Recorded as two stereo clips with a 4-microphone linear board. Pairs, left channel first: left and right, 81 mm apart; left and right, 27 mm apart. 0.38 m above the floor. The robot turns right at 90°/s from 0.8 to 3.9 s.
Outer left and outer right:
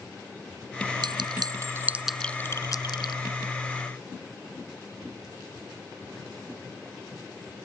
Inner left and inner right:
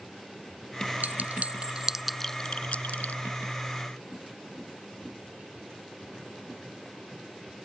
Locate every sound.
1.0 s a clink: 80° right; by 3.2 s 80° left